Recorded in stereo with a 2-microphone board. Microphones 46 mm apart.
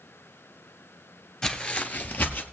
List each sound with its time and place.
1.4 s footsteps: 15° left (ahead or behind), 1.1 m; by 2.4 s 40° left (ahead or behind), 1.5 m